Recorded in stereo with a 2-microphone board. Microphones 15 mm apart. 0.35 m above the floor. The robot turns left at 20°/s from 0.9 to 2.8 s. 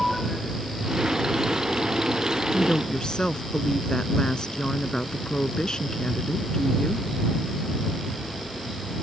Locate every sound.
2.5 s a woman speaking: 55° left (ahead or behind); by 7.1 s 60° left (ahead or behind)